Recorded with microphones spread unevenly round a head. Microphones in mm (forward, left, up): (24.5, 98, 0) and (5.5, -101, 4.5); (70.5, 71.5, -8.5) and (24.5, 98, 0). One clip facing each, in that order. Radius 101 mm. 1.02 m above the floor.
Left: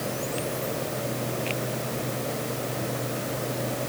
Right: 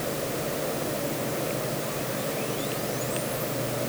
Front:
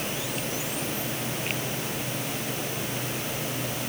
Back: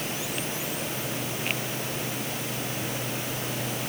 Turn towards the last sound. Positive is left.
No sound to turn to.